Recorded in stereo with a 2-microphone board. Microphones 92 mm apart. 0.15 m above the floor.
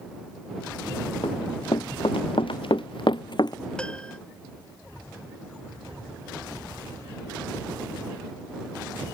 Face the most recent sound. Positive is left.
turn(degrees=10)  # may be behind; listen again after turning